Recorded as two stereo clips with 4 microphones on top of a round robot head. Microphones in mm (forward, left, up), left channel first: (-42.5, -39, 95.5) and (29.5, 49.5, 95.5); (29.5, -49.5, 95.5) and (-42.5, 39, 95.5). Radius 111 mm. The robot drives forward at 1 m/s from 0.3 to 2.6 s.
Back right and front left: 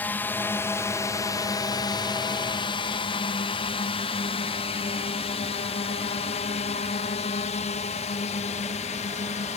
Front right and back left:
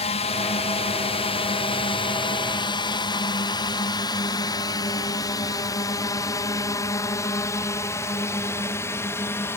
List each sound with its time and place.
0.0 s a drone: 55° right; by 9.6 s 120° right